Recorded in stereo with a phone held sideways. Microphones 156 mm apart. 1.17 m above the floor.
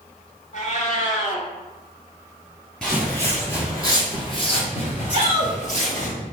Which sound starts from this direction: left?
A cat meowing, at 0.5 s.